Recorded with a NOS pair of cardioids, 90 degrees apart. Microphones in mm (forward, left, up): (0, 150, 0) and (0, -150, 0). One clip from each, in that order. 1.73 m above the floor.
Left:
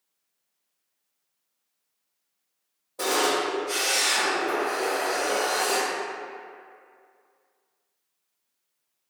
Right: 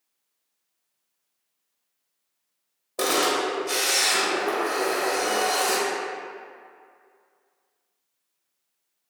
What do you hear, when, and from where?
3.0 s a camera shutter: 65° right, 1.1 m